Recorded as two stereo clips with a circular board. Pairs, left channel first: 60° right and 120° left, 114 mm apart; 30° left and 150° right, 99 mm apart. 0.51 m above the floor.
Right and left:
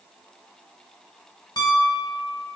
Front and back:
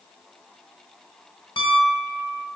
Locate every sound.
1.6 s a piano: 10° right, 0.6 m